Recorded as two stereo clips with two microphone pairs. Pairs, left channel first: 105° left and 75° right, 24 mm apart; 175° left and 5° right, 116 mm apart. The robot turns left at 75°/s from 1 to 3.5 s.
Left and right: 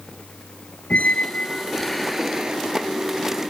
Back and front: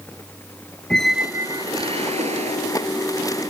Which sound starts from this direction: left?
A squeak, at 0.9 s.